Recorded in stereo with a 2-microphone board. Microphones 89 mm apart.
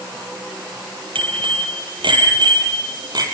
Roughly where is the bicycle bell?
Right.